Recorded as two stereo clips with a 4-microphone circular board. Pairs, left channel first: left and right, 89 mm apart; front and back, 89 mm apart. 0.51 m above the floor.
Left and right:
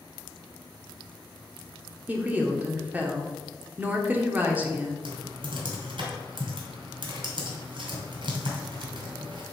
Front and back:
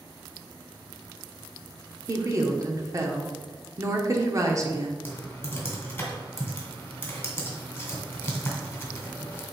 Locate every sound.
2.1 s a woman speaking: 150° right, 1.0 m
5.0 s typing on a keyboard: 70° right, 2.0 m